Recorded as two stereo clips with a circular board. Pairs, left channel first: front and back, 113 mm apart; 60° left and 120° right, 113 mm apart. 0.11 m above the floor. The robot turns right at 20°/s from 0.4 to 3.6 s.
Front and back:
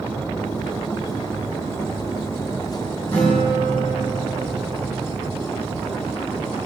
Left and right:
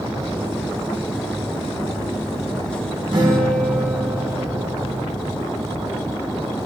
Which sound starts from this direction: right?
A guitar, at 3.1 s.